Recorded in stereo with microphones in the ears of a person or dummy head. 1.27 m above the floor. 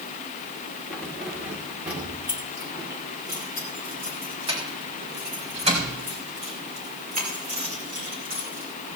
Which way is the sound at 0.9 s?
Centre (ahead or behind).